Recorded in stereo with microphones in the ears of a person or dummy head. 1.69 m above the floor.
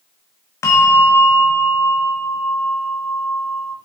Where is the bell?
15° left (ahead or behind), 1.3 m.